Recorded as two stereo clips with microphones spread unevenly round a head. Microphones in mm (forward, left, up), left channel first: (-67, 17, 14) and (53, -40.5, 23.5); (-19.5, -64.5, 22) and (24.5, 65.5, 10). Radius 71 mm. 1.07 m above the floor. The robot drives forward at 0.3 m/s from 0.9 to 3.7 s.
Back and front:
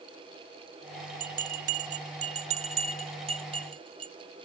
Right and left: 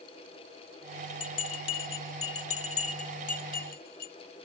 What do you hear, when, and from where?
1.2 s a bell: 55° right; by 4.1 s 80° right